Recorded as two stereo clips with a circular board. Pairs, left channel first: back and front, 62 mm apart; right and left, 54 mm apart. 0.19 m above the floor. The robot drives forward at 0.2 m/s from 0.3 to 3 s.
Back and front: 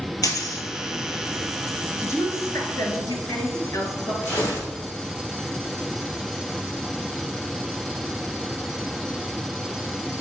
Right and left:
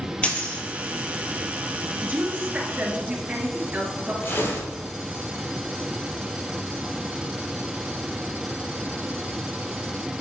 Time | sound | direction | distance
0.2 | a dropped coin | 160° right | 1.3 m
2.0 | a woman speaking | 150° left | 2.5 m
4.2 | tearing paper | 135° right | 2.5 m